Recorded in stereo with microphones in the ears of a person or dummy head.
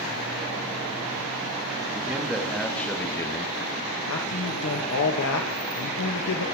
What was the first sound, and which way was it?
A man speaking, 10° right (ahead or behind).